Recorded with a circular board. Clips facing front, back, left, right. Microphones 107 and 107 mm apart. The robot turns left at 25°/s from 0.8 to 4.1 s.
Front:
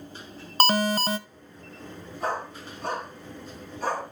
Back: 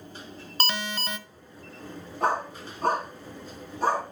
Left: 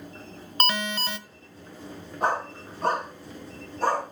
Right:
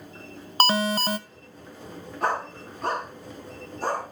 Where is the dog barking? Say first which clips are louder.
Back 4 dB, left 1 dB; 160° left, 6.5 m; by 4.0 s 115° left, 6.5 m.